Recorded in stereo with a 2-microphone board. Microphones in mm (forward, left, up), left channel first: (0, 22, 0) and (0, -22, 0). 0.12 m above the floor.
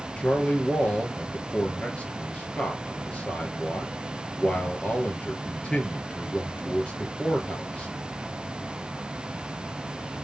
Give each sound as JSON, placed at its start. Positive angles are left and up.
{"t": 0.2, "sound": "a man speaking", "side_deg": 25, "distance_m": 2.5}